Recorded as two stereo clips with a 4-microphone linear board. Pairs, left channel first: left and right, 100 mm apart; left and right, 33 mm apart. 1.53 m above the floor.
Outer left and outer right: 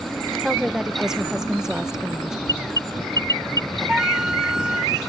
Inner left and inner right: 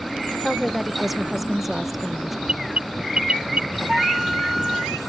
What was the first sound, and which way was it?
A woman speaking, 5° right (ahead or behind).